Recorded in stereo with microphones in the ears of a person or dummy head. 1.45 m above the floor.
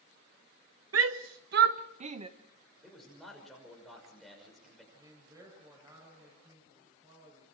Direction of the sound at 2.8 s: 10° left (ahead or behind).